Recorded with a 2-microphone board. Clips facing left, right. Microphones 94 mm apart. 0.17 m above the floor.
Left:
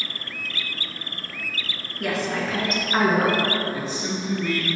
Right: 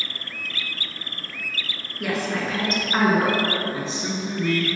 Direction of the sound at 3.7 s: 20° right (ahead or behind).